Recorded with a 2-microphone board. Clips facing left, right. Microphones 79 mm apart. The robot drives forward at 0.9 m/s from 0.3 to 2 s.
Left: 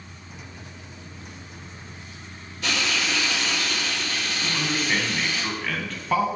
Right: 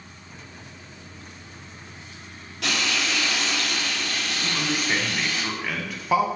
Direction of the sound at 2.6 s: 70° right (ahead or behind).